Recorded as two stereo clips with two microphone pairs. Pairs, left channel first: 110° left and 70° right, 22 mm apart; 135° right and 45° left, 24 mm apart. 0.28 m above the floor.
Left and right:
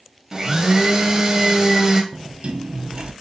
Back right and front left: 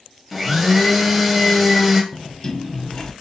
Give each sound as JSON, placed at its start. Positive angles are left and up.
{"t": 0.3, "sound": "a blender", "azimuth_deg": -35, "distance_m": 0.7}
{"t": 2.1, "sound": "a sliding door", "azimuth_deg": -70, "distance_m": 0.5}